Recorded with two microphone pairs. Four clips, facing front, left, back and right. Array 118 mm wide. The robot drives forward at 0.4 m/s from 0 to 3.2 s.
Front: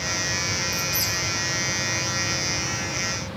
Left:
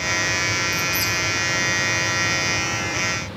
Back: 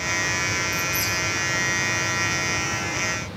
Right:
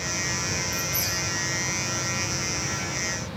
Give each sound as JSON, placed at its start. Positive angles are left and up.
{"t": 0.7, "sound": "a squeak", "azimuth_deg": -20, "distance_m": 3.5}